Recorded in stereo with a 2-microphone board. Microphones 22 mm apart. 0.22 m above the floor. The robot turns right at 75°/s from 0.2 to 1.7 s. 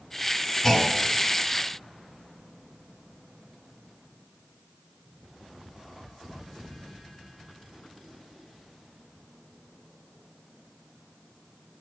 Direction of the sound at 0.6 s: 20° left (ahead or behind).